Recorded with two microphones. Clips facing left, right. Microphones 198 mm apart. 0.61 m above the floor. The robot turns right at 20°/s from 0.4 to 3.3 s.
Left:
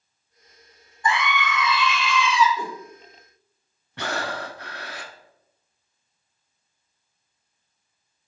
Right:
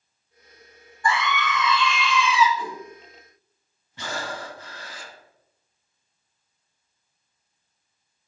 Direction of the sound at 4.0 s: 65° left (ahead or behind).